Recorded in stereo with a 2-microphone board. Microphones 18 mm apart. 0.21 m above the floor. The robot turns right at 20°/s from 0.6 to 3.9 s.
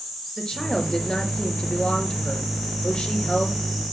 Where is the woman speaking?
40° left, 4 m; by 3.6 s 100° left, 4 m.